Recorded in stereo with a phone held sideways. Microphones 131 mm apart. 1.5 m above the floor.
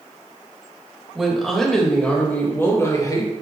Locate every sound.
1.1 s a woman speaking: 5° right (ahead or behind), 2.5 m; by 3.3 s 30° left (ahead or behind), 2 m